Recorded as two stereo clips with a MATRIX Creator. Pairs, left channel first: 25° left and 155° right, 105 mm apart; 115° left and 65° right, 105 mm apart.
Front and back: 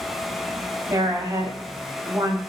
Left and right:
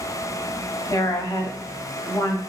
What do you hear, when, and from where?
0.9 s a woman speaking: 155° left, 0.6 m